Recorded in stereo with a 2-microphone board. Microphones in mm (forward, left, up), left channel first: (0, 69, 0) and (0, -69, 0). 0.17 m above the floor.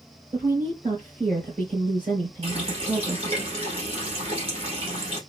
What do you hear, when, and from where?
0.3 s a woman speaking: 40° right (ahead or behind), 2.5 m
2.4 s a running tap: 45° right (ahead or behind), 2.5 m